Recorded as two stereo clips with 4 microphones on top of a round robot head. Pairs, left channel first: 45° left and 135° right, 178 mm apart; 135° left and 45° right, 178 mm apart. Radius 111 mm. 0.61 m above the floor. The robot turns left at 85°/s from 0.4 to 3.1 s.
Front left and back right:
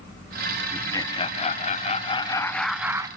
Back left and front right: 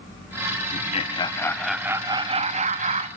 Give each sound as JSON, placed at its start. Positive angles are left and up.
{"t": 0.7, "sound": "laughter", "azimuth_deg": 125, "distance_m": 0.8}